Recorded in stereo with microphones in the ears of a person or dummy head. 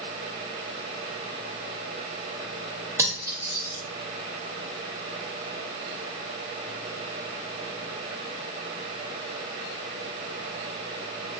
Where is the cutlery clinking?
20° right (ahead or behind), 0.8 m.